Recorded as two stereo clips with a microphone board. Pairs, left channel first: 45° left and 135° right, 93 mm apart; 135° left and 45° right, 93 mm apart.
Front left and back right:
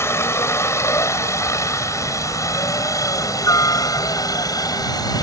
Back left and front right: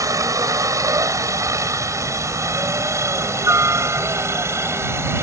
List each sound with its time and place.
0.0 s a helicopter: 5° right; by 5.2 s 10° left